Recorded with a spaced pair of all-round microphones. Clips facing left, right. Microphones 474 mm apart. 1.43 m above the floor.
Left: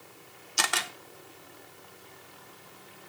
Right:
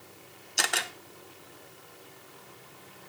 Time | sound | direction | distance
0.6 | a camera shutter | 20° left (ahead or behind) | 0.7 m